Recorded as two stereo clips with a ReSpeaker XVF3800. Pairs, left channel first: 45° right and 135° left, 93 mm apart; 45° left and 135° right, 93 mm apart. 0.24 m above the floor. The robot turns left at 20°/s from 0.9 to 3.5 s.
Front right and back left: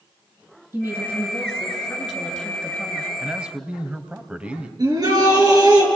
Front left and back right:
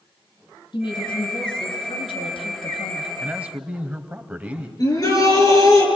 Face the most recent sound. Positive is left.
turn(degrees=90)